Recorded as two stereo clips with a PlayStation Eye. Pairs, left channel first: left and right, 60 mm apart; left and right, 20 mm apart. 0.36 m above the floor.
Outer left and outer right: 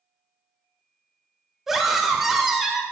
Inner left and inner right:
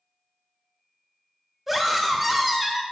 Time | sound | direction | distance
1.7 | a scream | 5° right (ahead or behind) | 0.9 m